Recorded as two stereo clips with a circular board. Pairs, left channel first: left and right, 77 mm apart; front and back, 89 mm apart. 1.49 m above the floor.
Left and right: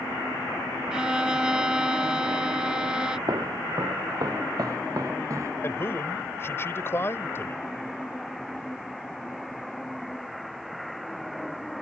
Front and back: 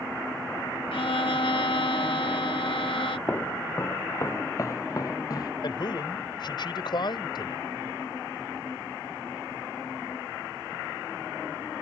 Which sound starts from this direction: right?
Footsteps, at 3.3 s.